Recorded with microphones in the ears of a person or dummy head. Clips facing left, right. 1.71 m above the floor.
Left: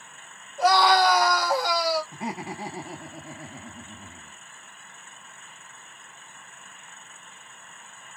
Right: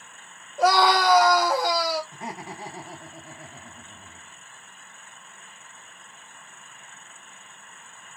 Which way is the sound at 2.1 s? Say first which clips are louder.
Left 4 dB; 10° left (ahead or behind).